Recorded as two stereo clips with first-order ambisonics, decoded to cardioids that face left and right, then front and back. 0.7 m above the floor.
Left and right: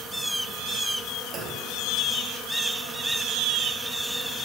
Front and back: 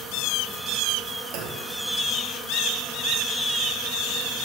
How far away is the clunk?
About 0.7 m.